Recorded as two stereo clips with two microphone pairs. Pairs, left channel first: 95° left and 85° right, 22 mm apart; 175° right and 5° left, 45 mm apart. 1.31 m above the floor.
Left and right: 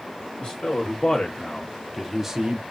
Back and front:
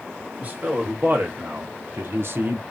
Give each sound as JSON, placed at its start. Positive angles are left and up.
{"t": 0.4, "sound": "a man speaking", "azimuth_deg": 50, "distance_m": 1.5}